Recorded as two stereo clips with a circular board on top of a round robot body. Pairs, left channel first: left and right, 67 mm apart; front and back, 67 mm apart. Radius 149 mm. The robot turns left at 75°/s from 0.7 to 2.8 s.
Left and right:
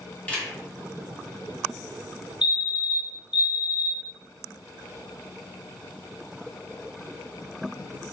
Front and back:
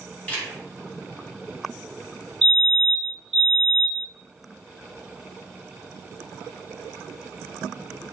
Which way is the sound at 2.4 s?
70° right.